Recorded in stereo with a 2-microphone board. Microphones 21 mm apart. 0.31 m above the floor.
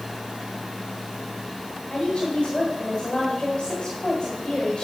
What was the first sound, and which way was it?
A woman speaking, 45° left (ahead or behind).